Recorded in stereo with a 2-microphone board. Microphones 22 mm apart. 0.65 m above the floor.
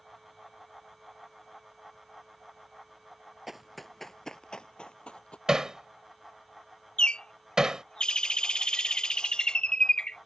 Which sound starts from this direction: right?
Hammering, at 5.5 s.